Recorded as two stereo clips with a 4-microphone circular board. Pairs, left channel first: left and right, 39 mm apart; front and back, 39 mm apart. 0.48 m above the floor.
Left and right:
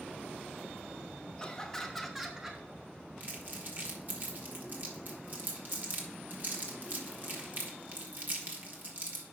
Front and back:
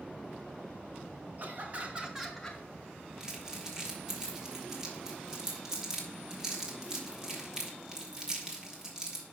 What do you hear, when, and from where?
1.4 s laughter: 160° left, 1.7 m; by 2.6 s 45° right, 1.2 m
3.2 s crumpling: 110° right, 1.9 m